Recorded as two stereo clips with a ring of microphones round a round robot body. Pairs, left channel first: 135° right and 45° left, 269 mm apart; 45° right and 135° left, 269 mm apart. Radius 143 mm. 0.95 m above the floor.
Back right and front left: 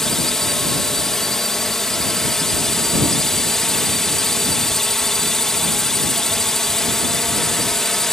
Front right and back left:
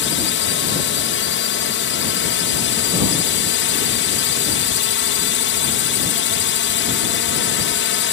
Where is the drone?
45° right.